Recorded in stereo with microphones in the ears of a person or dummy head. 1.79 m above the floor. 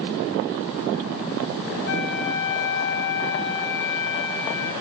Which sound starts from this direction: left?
A flute, at 1.9 s.